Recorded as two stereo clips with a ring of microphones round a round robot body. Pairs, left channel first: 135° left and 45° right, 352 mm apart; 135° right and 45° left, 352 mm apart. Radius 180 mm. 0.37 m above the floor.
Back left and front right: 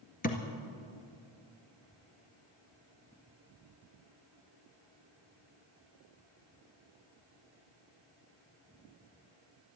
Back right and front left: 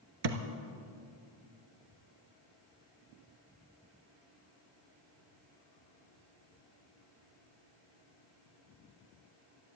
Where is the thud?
70° left, 1.5 m.